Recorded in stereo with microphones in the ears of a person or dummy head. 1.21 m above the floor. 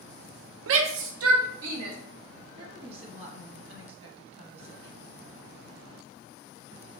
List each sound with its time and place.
0.7 s a shout: 80° right, 0.6 m; by 2.0 s 75° right (ahead or behind), 1.2 m
2.6 s a woman speaking: 30° right (ahead or behind), 1.2 m